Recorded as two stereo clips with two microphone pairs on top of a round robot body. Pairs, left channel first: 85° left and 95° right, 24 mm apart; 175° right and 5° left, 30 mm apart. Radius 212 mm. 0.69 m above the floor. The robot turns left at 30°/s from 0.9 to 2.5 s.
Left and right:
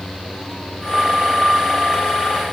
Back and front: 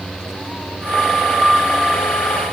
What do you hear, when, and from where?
Only background noise.